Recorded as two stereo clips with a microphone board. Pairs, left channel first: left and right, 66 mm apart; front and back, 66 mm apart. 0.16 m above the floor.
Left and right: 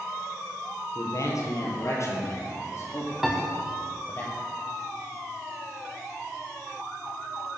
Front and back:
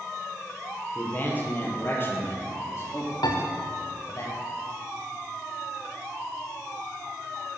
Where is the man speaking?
65° left, 4.5 m; by 4.2 s 35° left, 4.5 m.